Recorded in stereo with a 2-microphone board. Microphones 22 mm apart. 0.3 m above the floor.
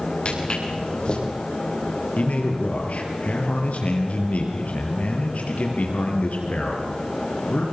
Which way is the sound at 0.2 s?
45° left (ahead or behind).